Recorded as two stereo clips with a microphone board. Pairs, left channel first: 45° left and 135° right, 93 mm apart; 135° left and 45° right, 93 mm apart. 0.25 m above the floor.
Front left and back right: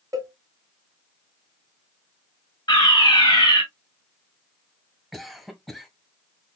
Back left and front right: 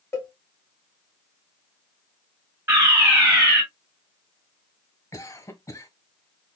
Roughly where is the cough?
Behind left.